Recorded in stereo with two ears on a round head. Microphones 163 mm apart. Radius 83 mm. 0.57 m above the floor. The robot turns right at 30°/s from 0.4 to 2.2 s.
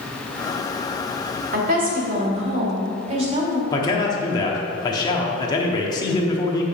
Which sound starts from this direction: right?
A woman speaking, at 1.5 s.